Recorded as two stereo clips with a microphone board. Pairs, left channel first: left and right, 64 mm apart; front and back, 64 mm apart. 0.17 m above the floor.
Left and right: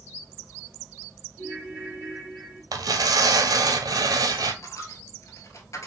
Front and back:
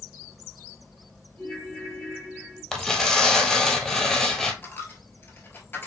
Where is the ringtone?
60° left, 3 m.